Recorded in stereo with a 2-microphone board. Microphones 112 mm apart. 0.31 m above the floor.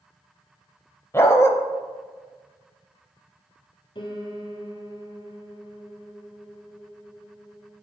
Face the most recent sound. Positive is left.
turn(degrees=45)  # may be behind; listen again after turning